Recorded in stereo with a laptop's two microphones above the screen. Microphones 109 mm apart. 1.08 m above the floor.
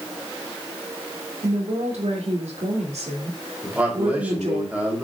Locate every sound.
1.4 s a woman speaking: 85° right, 2.5 m
3.6 s a man speaking: 15° right (ahead or behind), 3 m